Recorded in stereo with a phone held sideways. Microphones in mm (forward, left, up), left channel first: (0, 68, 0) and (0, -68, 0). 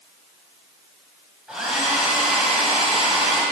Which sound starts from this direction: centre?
A hair dryer, at 1.5 s.